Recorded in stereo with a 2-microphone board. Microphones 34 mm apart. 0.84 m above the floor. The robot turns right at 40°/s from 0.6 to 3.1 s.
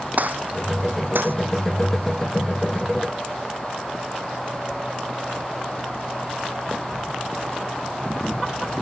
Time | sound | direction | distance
0.2 | a gunshot | 55° right (ahead or behind) | ?